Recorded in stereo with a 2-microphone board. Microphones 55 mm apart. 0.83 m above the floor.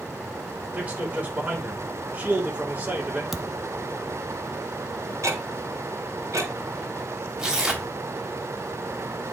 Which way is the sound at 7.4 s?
10° right (ahead or behind).